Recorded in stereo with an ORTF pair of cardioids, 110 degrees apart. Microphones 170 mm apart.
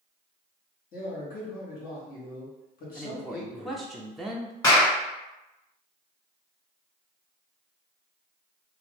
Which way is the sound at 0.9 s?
60° left.